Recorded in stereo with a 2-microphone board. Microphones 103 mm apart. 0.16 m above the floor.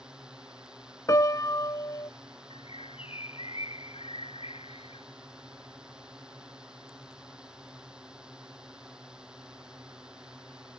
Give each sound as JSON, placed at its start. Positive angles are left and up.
{"t": 0.0, "sound": "a drone", "side_deg": -10}
{"t": 1.1, "sound": "a piano", "side_deg": 35}
{"t": 2.5, "sound": "a bird", "side_deg": 70}